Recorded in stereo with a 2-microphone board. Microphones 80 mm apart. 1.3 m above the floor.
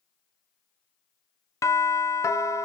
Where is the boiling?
No boiling in this recording.